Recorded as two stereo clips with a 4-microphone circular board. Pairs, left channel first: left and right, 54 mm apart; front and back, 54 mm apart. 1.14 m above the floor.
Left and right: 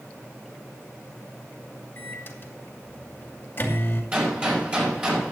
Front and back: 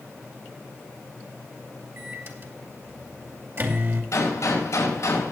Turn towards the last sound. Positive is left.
turn(degrees=-25)